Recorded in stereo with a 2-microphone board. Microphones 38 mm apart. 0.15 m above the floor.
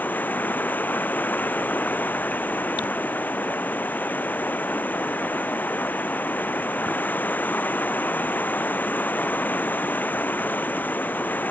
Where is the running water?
50° left (ahead or behind).